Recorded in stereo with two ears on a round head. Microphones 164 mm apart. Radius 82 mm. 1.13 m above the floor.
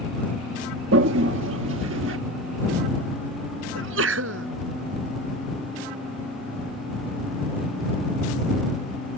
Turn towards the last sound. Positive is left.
turn(degrees=-85)